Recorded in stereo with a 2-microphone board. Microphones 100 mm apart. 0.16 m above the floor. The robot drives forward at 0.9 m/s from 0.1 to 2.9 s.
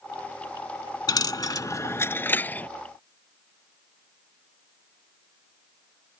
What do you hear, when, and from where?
1.1 s a dropped coin: 45° left (ahead or behind); by 2.7 s 20° left (ahead or behind)